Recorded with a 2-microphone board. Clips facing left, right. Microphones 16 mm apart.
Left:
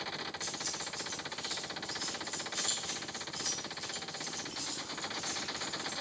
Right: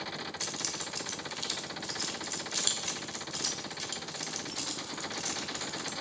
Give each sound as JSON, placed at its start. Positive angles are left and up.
{"t": 0.4, "sound": "keys jangling", "side_deg": -75, "distance_m": 1.7}